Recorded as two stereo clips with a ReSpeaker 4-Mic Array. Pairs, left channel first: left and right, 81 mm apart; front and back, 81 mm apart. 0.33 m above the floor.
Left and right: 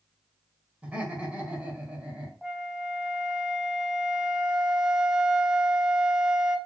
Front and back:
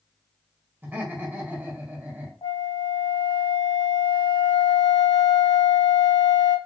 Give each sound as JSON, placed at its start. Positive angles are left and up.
{"t": 0.8, "sound": "laughter", "azimuth_deg": -145, "distance_m": 1.6}
{"t": 2.4, "sound": "a flute", "azimuth_deg": -5, "distance_m": 0.6}